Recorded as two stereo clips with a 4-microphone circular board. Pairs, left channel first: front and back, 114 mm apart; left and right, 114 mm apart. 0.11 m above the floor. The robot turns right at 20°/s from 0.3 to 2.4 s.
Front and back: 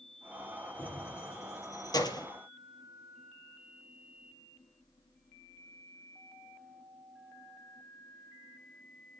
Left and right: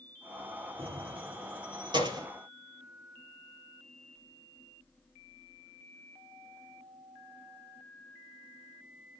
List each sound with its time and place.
0.8 s keys jangling: 75° right, 2 m; by 2.3 s 45° right, 2 m